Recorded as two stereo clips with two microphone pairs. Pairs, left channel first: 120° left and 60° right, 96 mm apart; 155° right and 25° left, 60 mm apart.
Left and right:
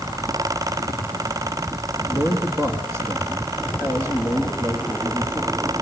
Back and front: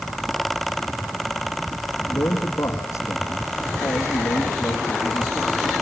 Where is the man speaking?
120° right, 3 m.